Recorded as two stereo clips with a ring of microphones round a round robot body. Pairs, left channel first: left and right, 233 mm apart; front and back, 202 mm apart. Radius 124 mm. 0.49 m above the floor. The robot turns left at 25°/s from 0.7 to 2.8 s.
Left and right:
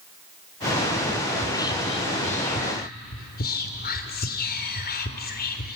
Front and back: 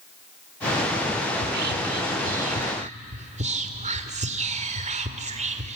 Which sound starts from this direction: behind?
Whispering, at 1.4 s.